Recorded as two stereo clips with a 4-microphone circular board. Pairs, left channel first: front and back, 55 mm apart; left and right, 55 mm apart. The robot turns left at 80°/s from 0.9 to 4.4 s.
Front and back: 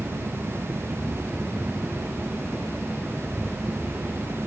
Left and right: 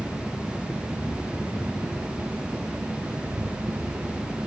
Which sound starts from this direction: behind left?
A helicopter, at 0.0 s.